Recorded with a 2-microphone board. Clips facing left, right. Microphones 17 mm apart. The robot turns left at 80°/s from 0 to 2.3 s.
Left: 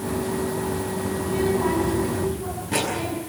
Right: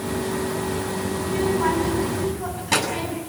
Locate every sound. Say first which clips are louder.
1.2 s a child speaking: right 1 dB; 10° right, 7.5 m; by 3.2 s 100° right, 7.5 m